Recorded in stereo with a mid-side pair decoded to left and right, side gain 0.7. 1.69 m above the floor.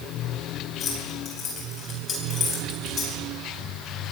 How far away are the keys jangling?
About 8 m.